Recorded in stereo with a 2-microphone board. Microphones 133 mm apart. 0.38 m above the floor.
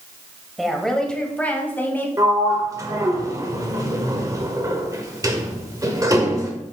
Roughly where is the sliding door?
Right.